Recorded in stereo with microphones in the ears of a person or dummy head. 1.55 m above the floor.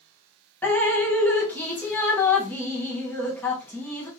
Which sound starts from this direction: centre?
Dripping, at 0.6 s.